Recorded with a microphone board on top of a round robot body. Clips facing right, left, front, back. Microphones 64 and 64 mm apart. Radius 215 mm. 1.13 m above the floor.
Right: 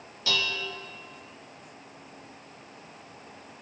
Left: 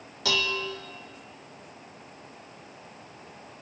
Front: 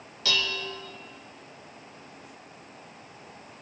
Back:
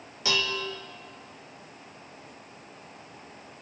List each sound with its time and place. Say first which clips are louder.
0.2 s dishes clattering: left 2 dB, back 1 dB; 110° left, 0.9 m